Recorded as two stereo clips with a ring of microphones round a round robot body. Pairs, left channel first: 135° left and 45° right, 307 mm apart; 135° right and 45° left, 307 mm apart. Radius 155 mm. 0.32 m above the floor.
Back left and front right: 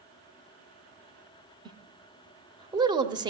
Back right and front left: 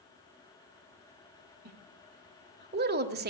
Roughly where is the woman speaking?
Ahead.